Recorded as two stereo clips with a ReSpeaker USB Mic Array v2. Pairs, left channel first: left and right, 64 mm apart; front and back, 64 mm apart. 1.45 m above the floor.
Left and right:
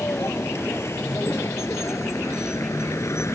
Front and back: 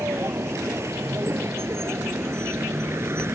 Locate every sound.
0.0 s a vehicle: 135° left